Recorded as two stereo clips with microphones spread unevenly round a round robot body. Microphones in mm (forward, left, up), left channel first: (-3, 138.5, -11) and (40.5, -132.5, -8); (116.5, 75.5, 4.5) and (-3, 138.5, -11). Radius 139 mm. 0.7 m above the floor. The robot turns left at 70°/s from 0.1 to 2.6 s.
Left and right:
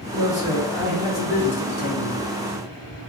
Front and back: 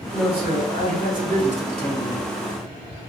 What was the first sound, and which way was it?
A man speaking, 130° right.